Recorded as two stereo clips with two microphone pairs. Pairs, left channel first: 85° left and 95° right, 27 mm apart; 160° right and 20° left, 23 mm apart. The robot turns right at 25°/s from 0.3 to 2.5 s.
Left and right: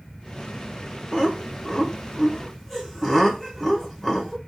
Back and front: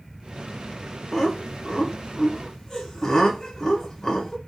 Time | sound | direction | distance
1.1 | laughter | 140° left | 0.9 m